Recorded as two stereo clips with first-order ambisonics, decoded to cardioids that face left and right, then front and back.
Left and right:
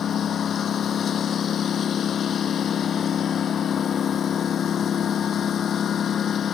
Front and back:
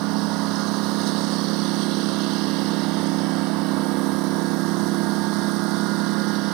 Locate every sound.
0.0 s a lawn mower: 155° left